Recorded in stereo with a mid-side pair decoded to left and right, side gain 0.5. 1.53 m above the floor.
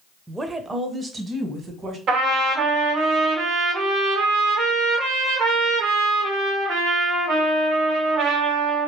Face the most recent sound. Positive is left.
turn(degrees=-70)